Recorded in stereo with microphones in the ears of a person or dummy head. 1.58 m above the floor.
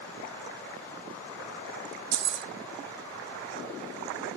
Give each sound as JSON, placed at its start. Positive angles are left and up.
{"t": 2.1, "sound": "keys jangling", "side_deg": -55, "distance_m": 1.2}